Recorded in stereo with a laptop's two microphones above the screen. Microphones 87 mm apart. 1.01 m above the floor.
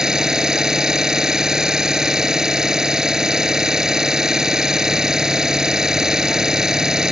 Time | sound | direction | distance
0.0 | an engine running | 5° right (ahead or behind) | ?